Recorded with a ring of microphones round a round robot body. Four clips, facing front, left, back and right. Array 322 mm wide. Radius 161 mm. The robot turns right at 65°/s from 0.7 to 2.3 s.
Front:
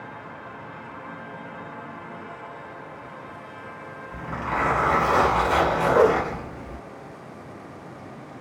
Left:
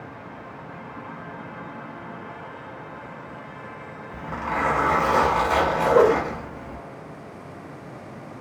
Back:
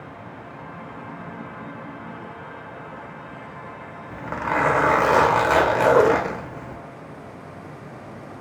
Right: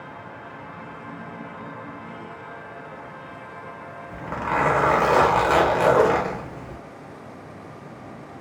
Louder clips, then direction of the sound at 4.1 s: Right 3 dB, back 4 dB; 155° right.